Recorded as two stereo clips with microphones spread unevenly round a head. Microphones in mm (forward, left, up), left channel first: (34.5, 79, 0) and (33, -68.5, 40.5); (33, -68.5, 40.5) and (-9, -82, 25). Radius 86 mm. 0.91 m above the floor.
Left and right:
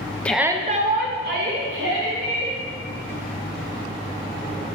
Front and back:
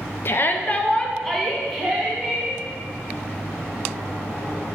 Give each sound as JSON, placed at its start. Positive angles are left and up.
{"t": 0.2, "sound": "a shout", "azimuth_deg": 45, "distance_m": 0.6}